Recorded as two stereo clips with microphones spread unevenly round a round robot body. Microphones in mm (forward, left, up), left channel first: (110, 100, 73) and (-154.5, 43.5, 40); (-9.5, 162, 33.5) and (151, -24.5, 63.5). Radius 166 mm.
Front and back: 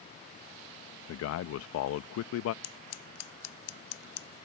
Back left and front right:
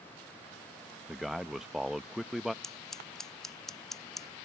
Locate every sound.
1.1 s a man speaking: 45° left
2.6 s scissors: 45° left